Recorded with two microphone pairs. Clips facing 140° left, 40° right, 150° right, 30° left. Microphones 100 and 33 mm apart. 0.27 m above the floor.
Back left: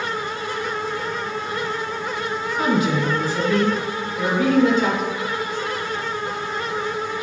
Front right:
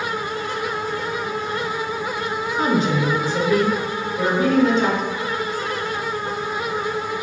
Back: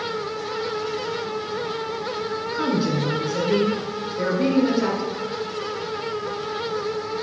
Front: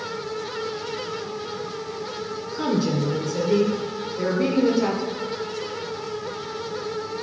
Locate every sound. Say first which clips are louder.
2.5 s a woman speaking: even, even; 95° right, 3 m